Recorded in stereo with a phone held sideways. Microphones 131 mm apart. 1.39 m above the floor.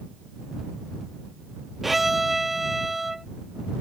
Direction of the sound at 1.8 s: Centre (ahead or behind).